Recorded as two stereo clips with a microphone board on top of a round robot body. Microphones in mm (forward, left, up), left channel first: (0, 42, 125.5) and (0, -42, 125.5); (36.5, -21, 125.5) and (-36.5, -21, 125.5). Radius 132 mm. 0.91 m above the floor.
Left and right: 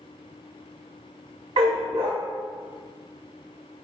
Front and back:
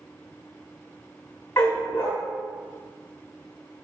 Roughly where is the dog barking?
Ahead right.